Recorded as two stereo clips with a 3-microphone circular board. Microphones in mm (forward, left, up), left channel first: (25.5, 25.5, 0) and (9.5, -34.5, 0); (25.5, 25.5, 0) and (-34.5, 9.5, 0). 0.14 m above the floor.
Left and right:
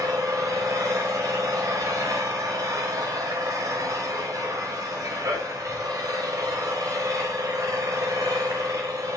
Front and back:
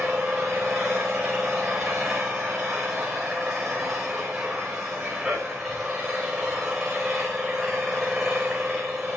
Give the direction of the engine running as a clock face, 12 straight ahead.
3 o'clock.